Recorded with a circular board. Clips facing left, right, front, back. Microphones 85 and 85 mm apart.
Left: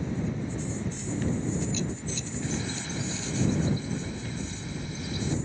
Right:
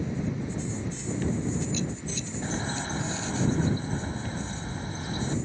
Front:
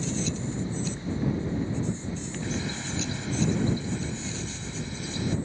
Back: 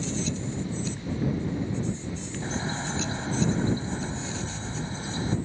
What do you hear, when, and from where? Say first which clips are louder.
2.4 s a bird: right 3 dB, back 3 dB; 130° right